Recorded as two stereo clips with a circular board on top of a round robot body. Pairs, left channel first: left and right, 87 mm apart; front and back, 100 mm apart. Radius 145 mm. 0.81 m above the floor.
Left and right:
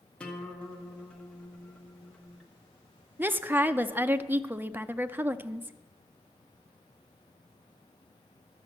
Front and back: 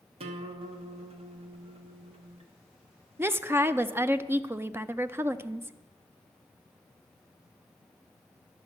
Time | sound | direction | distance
0.2 | a guitar | 170° left | 1.1 m
3.2 | a woman speaking | 135° right | 0.7 m